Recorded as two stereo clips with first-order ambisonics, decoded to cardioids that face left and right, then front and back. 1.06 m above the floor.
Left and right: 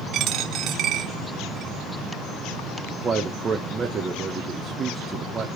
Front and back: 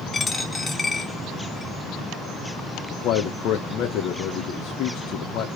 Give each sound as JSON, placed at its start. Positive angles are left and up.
{"t": 0.1, "sound": "a dropped coin", "azimuth_deg": -75, "distance_m": 0.8}
{"t": 2.9, "sound": "a man speaking", "azimuth_deg": -25, "distance_m": 1.1}